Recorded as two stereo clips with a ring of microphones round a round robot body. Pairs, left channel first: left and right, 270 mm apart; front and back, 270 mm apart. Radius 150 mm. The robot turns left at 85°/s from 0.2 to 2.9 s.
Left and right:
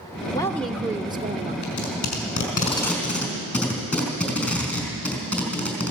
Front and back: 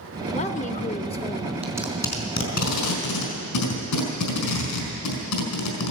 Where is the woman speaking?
30° left, 0.8 m; by 1.5 s 70° right, 0.8 m.